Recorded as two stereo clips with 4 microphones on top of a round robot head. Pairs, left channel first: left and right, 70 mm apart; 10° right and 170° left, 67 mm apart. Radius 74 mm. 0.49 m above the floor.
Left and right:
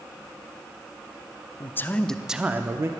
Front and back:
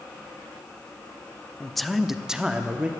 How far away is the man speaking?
About 1.0 m.